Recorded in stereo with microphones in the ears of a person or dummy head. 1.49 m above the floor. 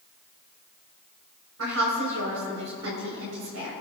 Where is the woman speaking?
85° right, 5 m.